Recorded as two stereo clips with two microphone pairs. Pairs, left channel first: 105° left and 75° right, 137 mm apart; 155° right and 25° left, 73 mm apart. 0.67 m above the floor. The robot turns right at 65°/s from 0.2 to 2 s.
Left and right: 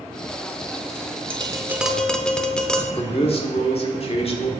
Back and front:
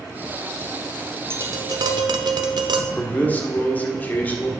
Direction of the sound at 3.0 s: 145° left.